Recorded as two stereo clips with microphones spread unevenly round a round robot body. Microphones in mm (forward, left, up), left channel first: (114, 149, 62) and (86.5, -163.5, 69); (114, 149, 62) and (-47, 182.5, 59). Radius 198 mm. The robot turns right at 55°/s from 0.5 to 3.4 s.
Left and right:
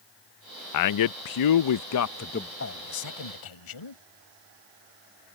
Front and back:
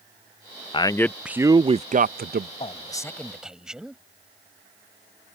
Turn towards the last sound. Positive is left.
turn(degrees=80)